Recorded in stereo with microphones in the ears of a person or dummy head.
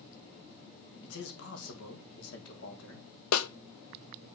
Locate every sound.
1.0 s a man speaking: 75° left (ahead or behind), 3 m
3.3 s a snare drum: 85° left, 0.9 m